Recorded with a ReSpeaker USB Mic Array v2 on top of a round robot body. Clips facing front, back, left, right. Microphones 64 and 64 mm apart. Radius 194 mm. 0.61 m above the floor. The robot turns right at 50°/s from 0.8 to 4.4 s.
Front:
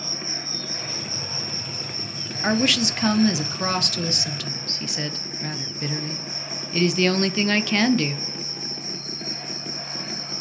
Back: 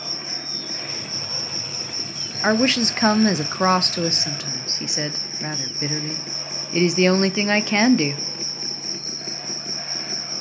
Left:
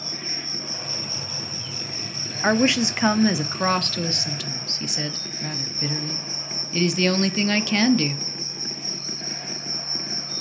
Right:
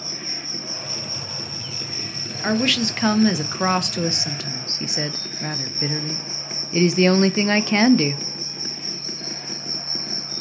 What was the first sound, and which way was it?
An insect, 140° left.